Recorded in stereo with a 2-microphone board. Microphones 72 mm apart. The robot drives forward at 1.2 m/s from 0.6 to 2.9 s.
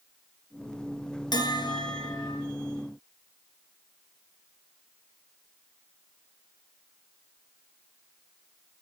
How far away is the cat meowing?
I don't hear a cat meowing.